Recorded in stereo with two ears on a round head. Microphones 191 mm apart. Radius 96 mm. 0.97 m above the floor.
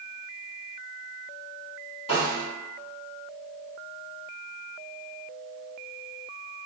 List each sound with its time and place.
2.1 s a snare drum: 30° left (ahead or behind), 1.8 m